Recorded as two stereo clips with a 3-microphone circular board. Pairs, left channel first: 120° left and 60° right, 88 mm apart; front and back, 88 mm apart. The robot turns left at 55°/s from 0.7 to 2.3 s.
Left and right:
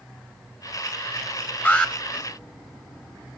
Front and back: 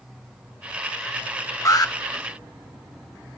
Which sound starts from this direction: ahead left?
An alarm, at 1.6 s.